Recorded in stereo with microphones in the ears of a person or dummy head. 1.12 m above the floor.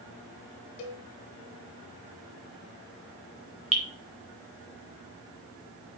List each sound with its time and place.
0.8 s a cowbell: 45° left (ahead or behind), 1.3 m
3.7 s dripping: 5° right (ahead or behind), 2.5 m